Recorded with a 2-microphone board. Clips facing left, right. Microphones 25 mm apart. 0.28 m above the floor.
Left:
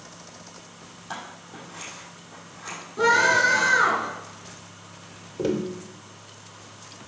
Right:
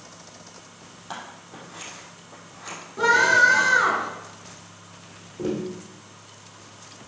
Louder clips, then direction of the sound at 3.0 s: Right 2 dB; centre (ahead or behind).